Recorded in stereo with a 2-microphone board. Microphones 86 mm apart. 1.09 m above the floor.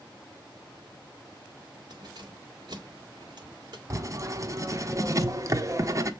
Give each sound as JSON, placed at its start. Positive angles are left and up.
{"t": 1.9, "sound": "keys jangling", "side_deg": -55, "distance_m": 1.7}
{"t": 3.9, "sound": "writing", "side_deg": -35, "distance_m": 0.7}